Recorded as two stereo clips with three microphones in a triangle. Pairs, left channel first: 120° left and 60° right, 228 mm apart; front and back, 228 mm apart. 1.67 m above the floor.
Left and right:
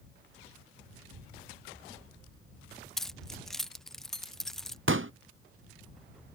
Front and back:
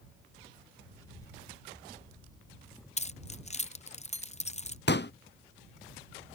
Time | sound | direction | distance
0.9 | a child speaking | 75° right | ?
3.0 | keys jangling | 35° left | ?
4.9 | a pop | 35° right | ?